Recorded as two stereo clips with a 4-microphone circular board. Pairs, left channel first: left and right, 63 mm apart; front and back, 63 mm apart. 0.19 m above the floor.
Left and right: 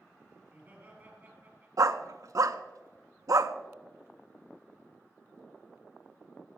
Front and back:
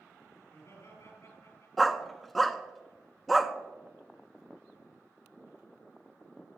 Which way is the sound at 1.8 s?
90° right.